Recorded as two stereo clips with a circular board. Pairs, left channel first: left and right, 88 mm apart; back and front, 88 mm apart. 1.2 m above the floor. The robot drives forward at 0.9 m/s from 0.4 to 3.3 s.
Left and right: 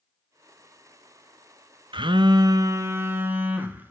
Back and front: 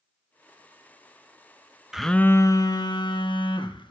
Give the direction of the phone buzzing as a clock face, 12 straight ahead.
3 o'clock.